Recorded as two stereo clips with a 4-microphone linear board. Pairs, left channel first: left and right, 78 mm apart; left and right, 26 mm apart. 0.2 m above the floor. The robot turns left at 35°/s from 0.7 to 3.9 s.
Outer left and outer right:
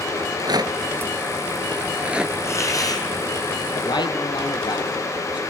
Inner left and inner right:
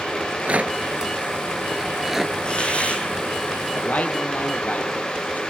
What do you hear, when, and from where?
0.2 s a rattle: 60° right (ahead or behind), 1.2 m; by 2.4 s 5° right (ahead or behind), 1.2 m
2.5 s a hiss: 35° left (ahead or behind), 5 m; by 3.0 s 55° left (ahead or behind), 5 m
3.8 s a man speaking: 70° left (ahead or behind), 6 m; by 5.4 s 75° left (ahead or behind), 6 m